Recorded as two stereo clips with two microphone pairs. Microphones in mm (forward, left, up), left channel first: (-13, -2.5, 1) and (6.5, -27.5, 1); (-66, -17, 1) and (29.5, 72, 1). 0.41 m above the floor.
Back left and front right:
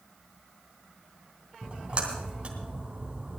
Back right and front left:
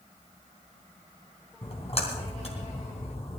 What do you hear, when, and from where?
1.6 s a splash: 105° right, 3 m